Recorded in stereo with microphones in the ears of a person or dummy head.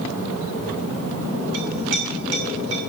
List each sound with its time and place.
1.5 s a clink: 85° right, 6 m